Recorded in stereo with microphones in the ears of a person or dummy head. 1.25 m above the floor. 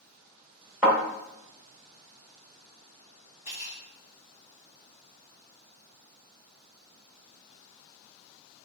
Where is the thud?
5° right (ahead or behind), 1.5 m.